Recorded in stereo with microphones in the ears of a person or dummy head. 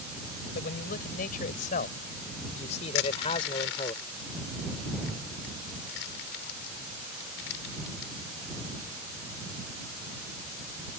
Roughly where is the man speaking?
Left.